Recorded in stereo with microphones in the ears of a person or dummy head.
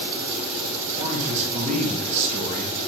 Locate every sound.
1.0 s a man speaking: 30° right (ahead or behind), 1.8 m